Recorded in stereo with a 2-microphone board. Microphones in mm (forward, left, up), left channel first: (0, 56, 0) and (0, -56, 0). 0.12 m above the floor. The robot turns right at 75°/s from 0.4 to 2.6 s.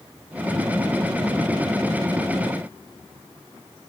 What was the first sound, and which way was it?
Only background noise.